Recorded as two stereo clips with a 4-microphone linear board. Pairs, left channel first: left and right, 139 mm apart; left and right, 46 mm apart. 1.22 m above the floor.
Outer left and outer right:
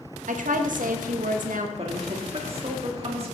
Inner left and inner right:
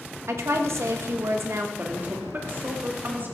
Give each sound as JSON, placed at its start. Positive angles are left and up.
{"t": 0.3, "sound": "a woman speaking", "side_deg": -70, "distance_m": 1.3}
{"t": 1.8, "sound": "a woman speaking", "side_deg": -45, "distance_m": 2.0}